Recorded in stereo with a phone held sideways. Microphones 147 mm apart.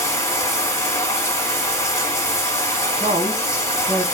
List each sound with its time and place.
0.0 s running water: 20° left (ahead or behind), 1.3 m
3.0 s a woman speaking: 60° right (ahead or behind), 1.3 m